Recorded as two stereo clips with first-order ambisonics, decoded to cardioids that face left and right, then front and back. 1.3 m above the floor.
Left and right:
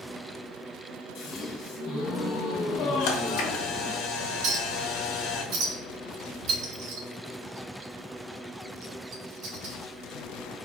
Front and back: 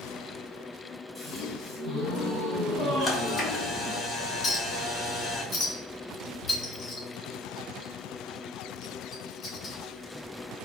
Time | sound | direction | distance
1.1 | a gasp | 105° left | 1.5 m
3.0 | a camera shutter | 75° left | 1.1 m
4.4 | a clink | 70° right | 2.5 m